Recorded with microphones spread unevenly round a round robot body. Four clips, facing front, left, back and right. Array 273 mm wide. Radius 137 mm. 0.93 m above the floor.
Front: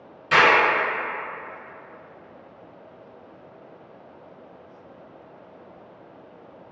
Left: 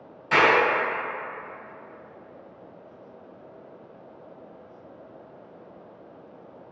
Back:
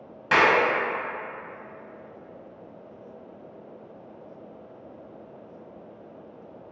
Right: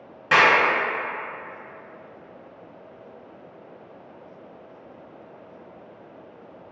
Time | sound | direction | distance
0.3 | a clap | 125° right | 1.1 m